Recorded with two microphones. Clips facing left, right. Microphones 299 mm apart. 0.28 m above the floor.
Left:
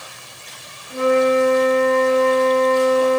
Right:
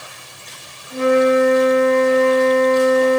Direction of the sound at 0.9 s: 10° left (ahead or behind).